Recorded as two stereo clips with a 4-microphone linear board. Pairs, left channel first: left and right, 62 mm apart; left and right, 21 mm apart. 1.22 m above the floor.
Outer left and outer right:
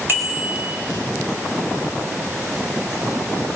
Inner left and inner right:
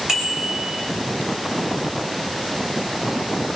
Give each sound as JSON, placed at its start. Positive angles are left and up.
{"t": 0.1, "sound": "a bicycle bell", "side_deg": -35, "distance_m": 4.5}